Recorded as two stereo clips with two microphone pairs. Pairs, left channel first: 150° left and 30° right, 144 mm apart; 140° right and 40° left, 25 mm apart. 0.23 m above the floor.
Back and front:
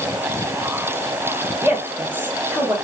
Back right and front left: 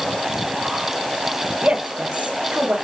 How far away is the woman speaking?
About 3.5 m.